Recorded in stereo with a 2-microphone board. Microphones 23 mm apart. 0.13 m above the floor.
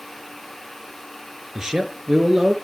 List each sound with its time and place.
1.6 s a man speaking: 25° right (ahead or behind), 1.6 m